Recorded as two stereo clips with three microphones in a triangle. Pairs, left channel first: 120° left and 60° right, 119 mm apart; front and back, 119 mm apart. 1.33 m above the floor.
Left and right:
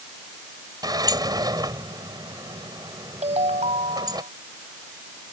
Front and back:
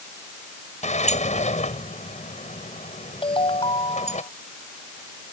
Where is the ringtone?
40° right.